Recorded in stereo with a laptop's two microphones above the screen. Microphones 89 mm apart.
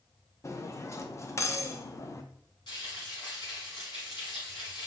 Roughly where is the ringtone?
I don't hear a ringtone.